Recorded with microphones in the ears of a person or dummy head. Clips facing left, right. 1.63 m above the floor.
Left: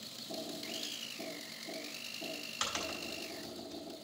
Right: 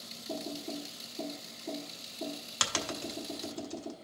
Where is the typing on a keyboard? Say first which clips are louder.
Right 5 dB; 75° right (ahead or behind), 1.1 m.